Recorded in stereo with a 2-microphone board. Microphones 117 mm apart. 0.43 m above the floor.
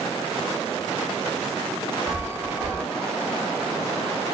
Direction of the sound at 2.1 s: 15° right (ahead or behind).